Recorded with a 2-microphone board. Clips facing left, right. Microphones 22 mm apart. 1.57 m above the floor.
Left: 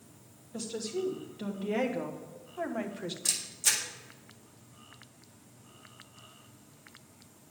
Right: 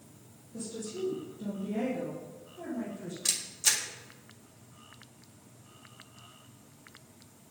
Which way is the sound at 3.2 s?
25° right (ahead or behind).